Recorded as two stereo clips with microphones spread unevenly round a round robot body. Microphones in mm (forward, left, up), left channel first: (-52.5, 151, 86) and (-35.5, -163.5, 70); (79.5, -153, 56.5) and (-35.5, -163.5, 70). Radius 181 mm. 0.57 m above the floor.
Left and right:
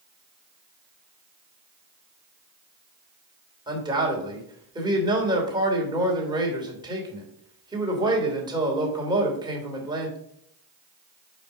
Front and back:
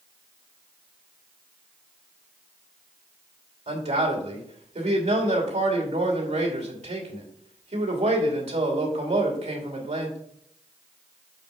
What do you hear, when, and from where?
3.7 s a man speaking: 160° right, 3 m